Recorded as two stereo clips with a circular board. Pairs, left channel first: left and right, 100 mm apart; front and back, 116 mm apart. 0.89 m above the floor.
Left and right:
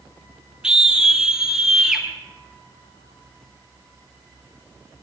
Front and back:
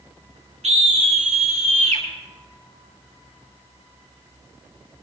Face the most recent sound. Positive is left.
turn(degrees=-175)